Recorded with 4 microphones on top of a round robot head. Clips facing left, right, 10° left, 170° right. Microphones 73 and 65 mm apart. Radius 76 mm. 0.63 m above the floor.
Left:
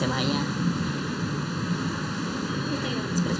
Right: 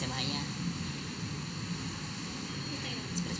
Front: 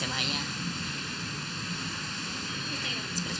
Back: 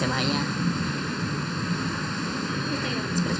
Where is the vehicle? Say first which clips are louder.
Left 11 dB, back 8 dB; 135° left.